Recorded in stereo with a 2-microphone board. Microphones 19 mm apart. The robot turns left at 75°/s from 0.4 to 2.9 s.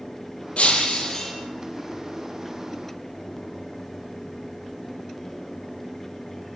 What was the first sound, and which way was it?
Breaking glass, 75° left.